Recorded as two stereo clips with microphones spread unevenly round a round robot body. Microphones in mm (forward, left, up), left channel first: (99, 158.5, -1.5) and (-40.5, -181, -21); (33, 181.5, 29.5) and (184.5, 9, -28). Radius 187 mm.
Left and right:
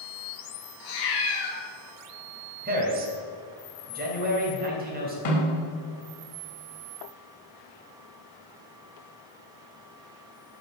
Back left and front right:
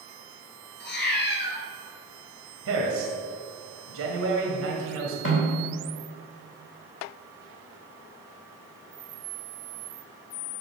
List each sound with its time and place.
0.8 s a cat meowing: 95° left, 3 m
2.6 s a man speaking: 50° right, 2.5 m
5.2 s a snare drum: 100° left, 3.5 m